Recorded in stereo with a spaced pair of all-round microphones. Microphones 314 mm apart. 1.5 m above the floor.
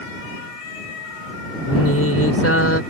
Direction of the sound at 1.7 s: 50° left (ahead or behind).